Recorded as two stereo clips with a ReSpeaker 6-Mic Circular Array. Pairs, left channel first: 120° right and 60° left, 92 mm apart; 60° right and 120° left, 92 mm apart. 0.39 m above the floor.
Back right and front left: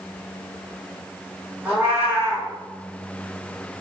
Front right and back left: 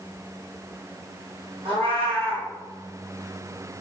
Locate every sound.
1.6 s a cat meowing: 135° left, 2 m